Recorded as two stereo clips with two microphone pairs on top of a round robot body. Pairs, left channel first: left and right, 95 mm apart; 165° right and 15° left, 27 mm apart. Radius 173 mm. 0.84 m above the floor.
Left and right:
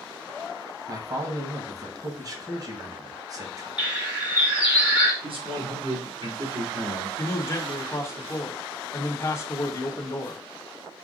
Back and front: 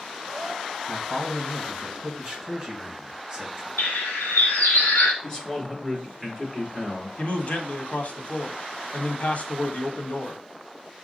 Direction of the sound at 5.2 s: 95° right.